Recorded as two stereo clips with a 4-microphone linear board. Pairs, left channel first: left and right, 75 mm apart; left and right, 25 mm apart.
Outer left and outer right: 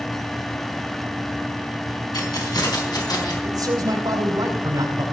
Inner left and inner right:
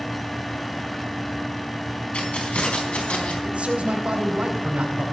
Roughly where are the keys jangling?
Left.